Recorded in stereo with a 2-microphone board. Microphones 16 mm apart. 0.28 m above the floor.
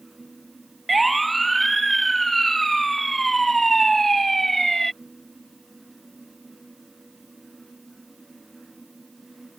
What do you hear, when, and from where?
0.9 s a siren: 5° left (ahead or behind); by 4.9 s 15° left (ahead or behind)